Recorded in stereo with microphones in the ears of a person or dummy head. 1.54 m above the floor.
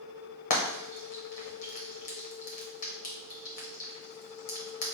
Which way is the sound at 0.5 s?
35° left (ahead or behind).